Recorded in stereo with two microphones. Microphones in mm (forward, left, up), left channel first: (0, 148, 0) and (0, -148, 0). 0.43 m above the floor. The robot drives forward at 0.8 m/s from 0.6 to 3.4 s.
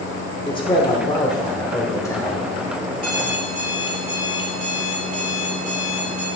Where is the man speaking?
15° left (ahead or behind), 1.2 m; by 2.5 s 10° left (ahead or behind), 2 m.